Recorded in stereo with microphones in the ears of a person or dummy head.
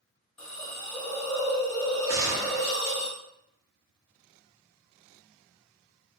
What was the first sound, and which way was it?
A hiss, 10° left (ahead or behind).